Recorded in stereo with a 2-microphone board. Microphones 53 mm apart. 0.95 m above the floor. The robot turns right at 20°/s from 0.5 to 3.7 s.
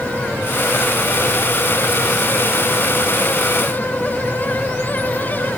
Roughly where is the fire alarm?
No fire alarm in this recording.